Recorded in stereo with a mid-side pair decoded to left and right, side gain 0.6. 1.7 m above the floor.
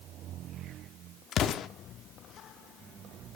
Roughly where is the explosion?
Ahead left.